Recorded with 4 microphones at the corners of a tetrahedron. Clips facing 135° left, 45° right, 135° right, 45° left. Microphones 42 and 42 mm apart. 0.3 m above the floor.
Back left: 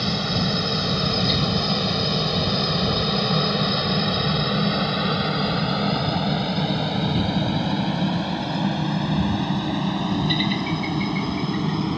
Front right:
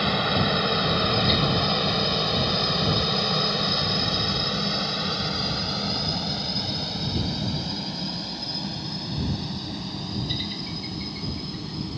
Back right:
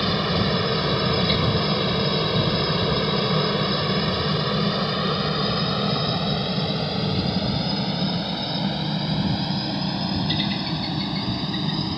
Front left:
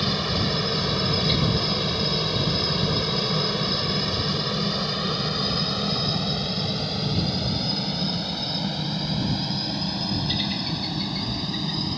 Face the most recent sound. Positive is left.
turn(degrees=150)